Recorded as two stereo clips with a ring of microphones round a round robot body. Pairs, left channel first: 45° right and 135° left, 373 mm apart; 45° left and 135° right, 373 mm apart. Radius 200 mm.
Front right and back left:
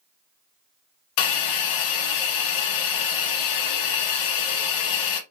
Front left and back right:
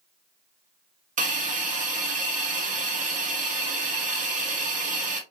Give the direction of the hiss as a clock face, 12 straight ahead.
2 o'clock.